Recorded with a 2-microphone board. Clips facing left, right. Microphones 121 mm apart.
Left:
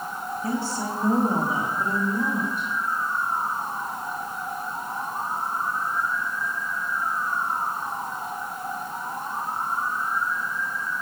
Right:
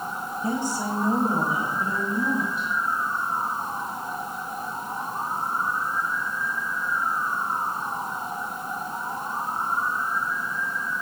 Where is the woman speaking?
25° right (ahead or behind), 1.3 m; by 2.7 s 55° left (ahead or behind), 2 m.